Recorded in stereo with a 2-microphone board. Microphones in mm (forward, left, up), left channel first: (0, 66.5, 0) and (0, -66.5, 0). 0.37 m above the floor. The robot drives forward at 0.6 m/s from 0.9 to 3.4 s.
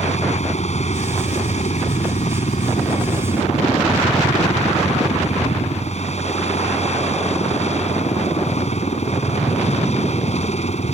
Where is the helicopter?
60° left (ahead or behind); by 10.9 s 55° left (ahead or behind).